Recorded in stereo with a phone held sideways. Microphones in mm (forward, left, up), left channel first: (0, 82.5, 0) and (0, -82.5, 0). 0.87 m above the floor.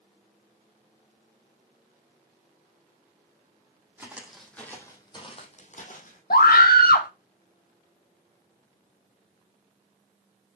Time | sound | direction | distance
4.0 | footsteps | 10° right (ahead or behind) | 2.5 m
6.3 | a scream | 80° left | 1.5 m